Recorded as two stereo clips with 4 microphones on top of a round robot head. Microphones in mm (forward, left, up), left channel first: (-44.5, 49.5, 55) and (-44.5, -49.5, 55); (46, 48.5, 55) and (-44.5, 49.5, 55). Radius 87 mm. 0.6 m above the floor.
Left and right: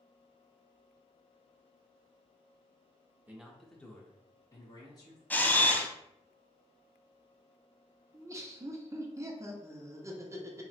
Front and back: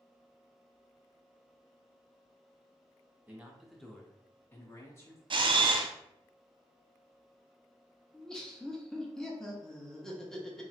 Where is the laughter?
80° right, 0.7 m.